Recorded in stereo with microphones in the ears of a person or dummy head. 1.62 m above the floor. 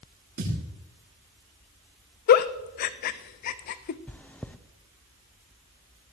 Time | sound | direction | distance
0.4 | a thud | 50° right (ahead or behind) | 6 m
2.3 | a giggle | 50° left (ahead or behind) | 0.5 m
4.1 | chewing | 5° left (ahead or behind) | 0.5 m